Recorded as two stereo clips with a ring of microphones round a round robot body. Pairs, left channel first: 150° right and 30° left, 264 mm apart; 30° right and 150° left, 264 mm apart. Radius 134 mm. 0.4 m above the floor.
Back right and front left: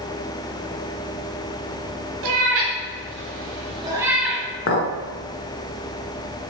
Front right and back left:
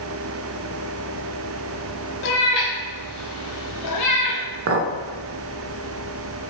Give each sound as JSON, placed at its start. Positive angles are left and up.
{"t": 2.2, "sound": "a cat meowing", "azimuth_deg": 15, "distance_m": 1.0}
{"t": 4.7, "sound": "a clink", "azimuth_deg": 180, "distance_m": 0.5}